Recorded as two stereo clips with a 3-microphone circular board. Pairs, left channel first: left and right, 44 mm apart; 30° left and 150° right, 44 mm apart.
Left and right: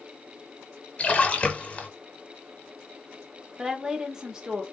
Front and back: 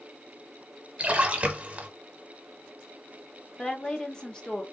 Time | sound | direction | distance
1.0 | a splash | 150° left | 0.8 m
3.6 | a woman speaking | 30° right | 0.8 m